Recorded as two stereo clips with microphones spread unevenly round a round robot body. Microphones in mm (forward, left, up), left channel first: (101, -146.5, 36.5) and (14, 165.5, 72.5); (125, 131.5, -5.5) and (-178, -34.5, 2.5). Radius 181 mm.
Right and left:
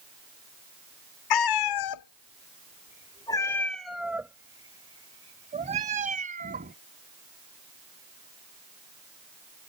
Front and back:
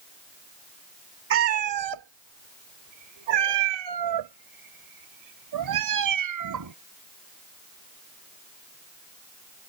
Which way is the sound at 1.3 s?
95° right.